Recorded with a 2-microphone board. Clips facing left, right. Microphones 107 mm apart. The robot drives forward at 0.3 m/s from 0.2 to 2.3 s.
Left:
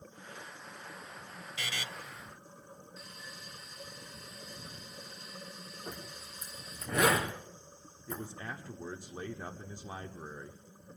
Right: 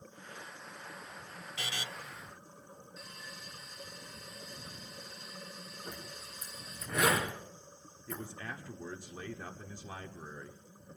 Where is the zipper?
60° left (ahead or behind), 3.5 m.